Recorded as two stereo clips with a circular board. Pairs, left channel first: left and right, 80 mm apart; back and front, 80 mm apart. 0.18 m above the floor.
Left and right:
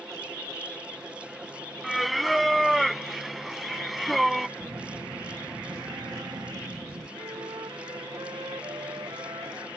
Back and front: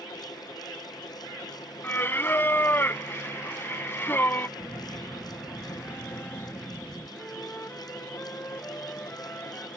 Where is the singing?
Straight behind.